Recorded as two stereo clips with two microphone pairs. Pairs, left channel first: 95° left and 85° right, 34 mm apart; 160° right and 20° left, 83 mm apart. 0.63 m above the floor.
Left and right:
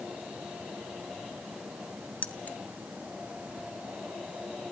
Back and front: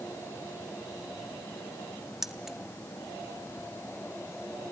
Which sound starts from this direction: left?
Keys jangling, at 2.2 s.